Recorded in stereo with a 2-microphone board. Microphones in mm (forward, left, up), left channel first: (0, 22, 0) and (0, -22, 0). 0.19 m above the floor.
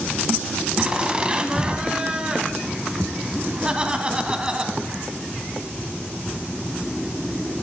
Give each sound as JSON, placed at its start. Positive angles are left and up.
{"t": 0.8, "sound": "laughter", "side_deg": -20, "distance_m": 1.1}